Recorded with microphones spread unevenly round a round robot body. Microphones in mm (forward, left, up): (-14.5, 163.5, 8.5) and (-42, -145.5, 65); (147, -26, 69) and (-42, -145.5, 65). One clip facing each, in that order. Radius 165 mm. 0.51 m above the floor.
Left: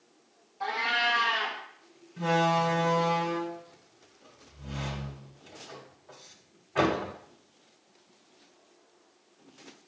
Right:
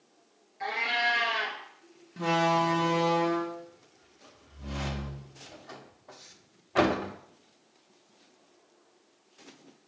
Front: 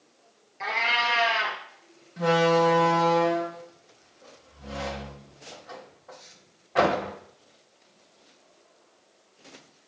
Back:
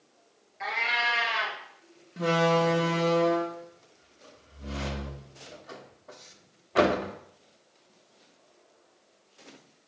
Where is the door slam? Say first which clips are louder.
Even, front 3 dB; 105° right, 1.0 m.